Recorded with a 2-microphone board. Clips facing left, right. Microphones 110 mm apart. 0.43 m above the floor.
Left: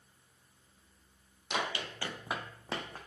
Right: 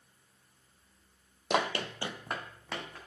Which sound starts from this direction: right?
Running footsteps, at 1.5 s.